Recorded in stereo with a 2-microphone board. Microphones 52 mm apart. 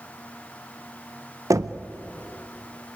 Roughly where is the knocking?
Right.